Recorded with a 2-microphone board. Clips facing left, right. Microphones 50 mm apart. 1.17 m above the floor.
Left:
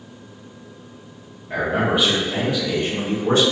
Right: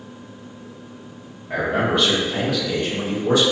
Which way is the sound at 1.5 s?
15° right (ahead or behind).